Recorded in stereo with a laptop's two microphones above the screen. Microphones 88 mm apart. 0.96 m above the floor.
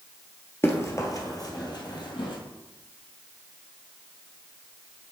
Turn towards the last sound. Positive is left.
turn(degrees=60)  # may be behind; listen again after turning